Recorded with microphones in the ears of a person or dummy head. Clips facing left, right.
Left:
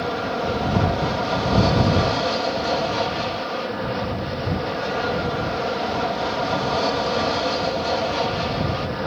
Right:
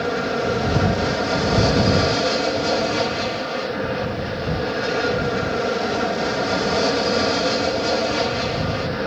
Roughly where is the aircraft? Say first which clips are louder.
Right 3 dB; right.